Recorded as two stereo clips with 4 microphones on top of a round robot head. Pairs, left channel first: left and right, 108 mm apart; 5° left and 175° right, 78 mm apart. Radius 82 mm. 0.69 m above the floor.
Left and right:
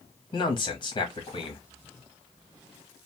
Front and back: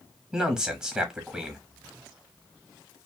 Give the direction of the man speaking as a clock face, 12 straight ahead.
8 o'clock.